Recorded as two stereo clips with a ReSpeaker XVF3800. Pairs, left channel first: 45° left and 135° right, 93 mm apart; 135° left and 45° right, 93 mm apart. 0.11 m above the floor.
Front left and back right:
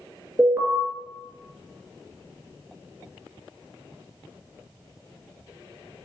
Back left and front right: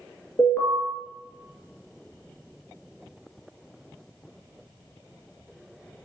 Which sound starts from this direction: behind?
An alarm, at 0.4 s.